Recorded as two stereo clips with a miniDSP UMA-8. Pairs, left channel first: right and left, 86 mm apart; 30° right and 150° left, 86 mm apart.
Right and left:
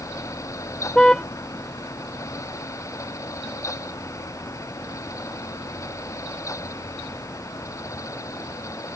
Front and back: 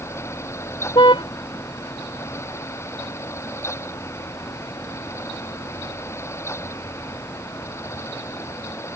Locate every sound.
0.9 s a car horn: 10° right